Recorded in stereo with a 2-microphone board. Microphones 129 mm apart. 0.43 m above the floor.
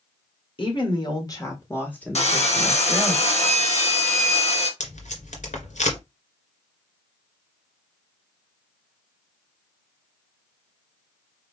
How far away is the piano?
No piano in this recording.